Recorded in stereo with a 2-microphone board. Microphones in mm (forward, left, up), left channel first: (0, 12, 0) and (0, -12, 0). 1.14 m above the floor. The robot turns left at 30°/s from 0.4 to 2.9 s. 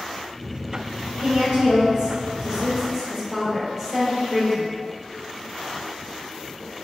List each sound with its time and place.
1.2 s a woman speaking: 115° right, 0.8 m; by 4.7 s 165° right, 0.8 m